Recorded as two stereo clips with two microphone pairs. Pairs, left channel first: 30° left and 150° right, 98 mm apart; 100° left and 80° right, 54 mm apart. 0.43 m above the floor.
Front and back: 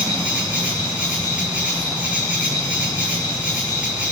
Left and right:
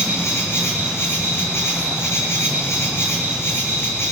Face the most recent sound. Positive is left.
turn(degrees=135)